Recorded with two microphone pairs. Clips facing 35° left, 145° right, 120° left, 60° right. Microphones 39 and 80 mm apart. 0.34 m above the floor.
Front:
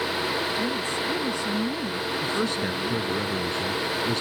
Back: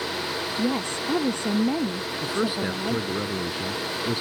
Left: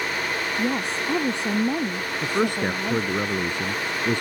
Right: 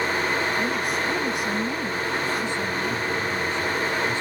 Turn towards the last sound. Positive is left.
turn(degrees=140)